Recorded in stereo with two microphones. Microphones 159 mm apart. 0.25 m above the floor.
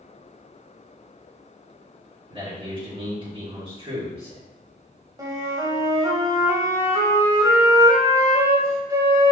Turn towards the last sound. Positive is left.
turn(degrees=-20)  # may be behind; listen again after turning